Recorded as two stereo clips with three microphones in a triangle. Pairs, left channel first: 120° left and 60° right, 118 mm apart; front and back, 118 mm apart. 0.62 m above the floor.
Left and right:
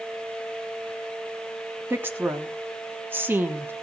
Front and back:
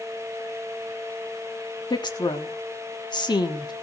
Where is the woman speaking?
Straight ahead, 1.2 m.